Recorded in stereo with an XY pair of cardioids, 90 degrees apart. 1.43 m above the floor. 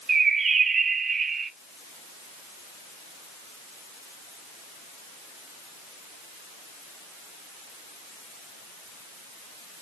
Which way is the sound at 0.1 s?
50° right.